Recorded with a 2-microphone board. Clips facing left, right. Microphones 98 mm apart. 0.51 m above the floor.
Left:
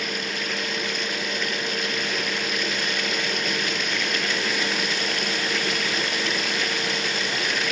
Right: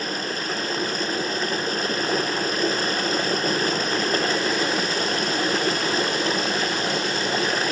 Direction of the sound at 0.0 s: 35° right (ahead or behind).